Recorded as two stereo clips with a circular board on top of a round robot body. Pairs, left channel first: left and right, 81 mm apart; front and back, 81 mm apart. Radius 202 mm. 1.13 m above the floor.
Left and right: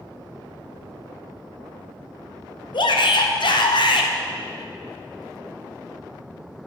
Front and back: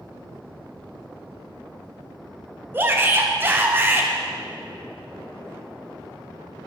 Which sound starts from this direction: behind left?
A shout, at 2.7 s.